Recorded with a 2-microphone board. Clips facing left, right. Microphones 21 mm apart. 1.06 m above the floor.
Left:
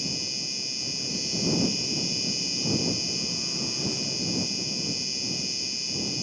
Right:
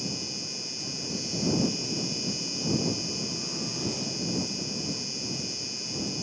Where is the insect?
15° left (ahead or behind).